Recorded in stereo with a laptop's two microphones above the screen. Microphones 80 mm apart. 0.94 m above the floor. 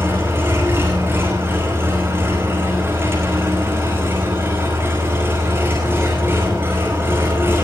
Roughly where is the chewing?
No chewing in this recording.